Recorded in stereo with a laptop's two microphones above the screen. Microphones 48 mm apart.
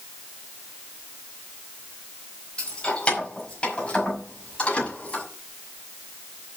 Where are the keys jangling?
20° left (ahead or behind), 4 m; by 5.2 s 25° left (ahead or behind), 6 m.